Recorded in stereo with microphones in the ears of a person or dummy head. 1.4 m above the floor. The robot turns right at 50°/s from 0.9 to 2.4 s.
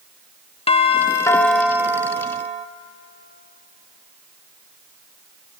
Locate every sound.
0.7 s a doorbell: 150° left, 1.0 m; by 2.7 s 135° right, 1.0 m